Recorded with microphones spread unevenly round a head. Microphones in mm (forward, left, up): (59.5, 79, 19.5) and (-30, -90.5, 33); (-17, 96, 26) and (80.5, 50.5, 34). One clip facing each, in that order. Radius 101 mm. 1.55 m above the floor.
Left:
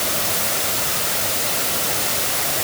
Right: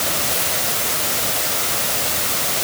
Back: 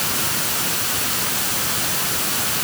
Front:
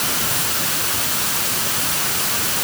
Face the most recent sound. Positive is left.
No sound to turn to.